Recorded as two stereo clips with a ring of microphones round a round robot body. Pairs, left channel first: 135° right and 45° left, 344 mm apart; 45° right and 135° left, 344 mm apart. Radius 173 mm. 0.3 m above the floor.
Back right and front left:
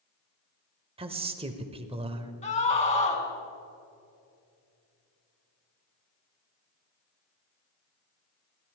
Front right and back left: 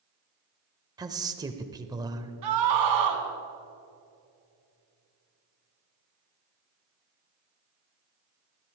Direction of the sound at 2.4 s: 155° left.